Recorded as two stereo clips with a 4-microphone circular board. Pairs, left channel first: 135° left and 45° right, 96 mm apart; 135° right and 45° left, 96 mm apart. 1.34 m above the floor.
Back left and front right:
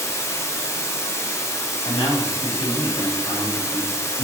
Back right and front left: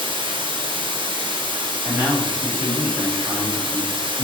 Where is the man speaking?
110° left, 1.7 m.